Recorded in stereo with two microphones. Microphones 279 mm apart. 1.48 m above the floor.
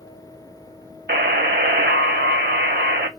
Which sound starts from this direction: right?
A buzzer, at 1.1 s.